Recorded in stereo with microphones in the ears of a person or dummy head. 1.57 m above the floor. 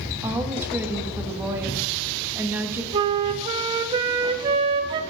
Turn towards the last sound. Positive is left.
turn(degrees=-30)  # may be behind; listen again after turning